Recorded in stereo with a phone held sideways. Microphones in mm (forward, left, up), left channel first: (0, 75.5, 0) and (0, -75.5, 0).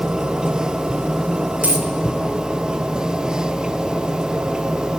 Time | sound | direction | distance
0.0 | a machine running | 5° right (ahead or behind) | 0.7 m
1.6 | a dropped coin | 10° right (ahead or behind) | 2.5 m